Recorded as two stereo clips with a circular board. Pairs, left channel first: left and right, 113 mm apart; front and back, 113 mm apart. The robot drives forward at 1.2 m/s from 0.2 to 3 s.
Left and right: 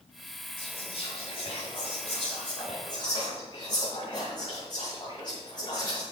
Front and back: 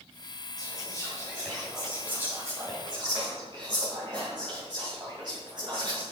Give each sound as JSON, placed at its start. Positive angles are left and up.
{"t": 0.6, "sound": "whispering", "azimuth_deg": 50, "distance_m": 2.0}